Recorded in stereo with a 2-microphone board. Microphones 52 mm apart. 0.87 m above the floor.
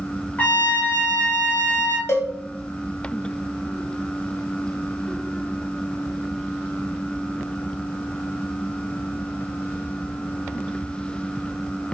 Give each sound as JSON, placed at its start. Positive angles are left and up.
{"t": 0.4, "sound": "a trumpet", "side_deg": 25, "distance_m": 1.2}
{"t": 2.1, "sound": "a cowbell", "side_deg": 50, "distance_m": 0.9}